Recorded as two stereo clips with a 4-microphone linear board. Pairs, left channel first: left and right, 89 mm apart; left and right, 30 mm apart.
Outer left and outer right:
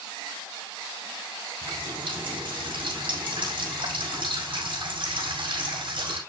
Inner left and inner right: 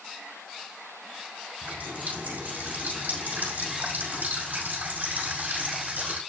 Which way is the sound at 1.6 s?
80° right.